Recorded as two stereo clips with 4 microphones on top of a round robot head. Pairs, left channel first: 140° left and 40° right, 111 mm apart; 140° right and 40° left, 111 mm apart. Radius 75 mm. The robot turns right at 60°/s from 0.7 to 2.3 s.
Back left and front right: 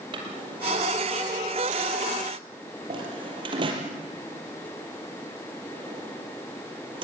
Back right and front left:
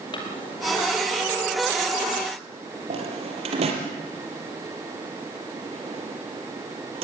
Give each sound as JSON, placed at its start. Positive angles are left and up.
{"t": 0.1, "sound": "a drawer", "azimuth_deg": -90, "distance_m": 4.5}